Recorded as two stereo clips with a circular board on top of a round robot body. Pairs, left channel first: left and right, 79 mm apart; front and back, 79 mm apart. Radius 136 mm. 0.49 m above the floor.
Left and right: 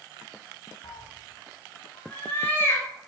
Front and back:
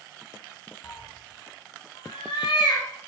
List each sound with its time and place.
0.8 s a cat meowing: 50° left, 0.6 m; by 2.9 s 25° left, 1.6 m